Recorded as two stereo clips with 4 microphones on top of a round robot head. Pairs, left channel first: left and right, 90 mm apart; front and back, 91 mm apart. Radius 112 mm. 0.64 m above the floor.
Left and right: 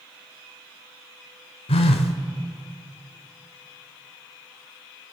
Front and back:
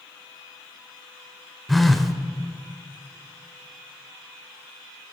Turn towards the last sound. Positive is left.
turn(degrees=90)